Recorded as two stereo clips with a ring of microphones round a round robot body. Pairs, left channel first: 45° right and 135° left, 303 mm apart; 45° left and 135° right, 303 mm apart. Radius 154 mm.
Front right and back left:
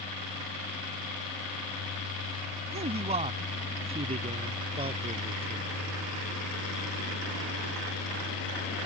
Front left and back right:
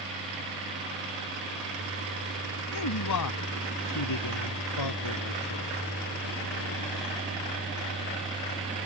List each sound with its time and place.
2.7 s a man speaking: 70° left; by 5.8 s 65° left